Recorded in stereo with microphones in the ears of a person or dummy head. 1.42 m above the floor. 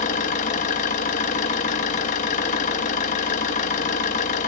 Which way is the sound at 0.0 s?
35° left (ahead or behind).